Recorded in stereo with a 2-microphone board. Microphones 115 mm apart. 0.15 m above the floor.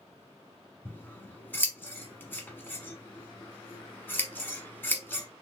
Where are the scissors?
20° left (ahead or behind), 0.8 m.